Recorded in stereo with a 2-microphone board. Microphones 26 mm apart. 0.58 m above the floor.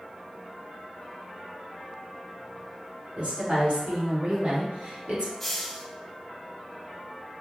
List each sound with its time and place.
3.2 s a woman speaking: 60° right (ahead or behind), 1.9 m; by 5.3 s 50° right (ahead or behind), 1.8 m
5.4 s a hiss: 10° left (ahead or behind), 0.8 m